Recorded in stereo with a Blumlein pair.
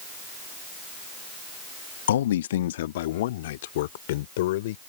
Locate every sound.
2.1 s a man speaking: 60° left; by 4.8 s 55° left